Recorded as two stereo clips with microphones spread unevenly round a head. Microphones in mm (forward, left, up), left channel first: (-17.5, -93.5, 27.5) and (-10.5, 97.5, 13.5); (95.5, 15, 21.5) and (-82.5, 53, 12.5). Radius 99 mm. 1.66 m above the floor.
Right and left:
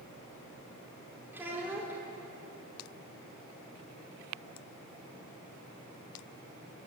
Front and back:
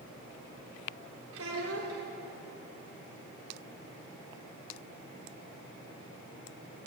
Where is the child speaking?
170° left, 3.5 m.